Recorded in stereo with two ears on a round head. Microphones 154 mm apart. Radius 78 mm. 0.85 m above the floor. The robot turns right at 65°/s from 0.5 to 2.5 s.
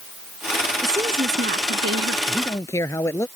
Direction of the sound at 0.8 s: 170° right.